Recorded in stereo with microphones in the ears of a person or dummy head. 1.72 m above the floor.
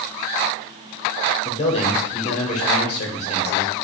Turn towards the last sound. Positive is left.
turn(degrees=35)  # may be behind; listen again after turning